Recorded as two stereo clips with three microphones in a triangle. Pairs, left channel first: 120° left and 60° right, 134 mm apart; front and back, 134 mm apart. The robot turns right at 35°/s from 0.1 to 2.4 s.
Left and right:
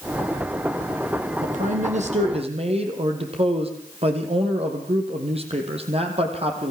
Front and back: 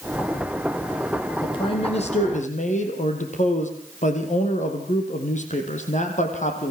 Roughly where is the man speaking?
Ahead right.